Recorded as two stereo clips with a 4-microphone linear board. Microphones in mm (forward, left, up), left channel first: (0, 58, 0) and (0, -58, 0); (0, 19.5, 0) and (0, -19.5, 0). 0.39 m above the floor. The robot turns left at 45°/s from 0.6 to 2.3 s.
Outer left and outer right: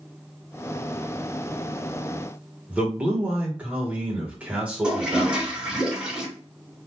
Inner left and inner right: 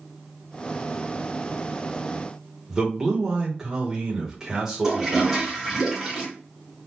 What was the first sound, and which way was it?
A man speaking, 10° right (ahead or behind).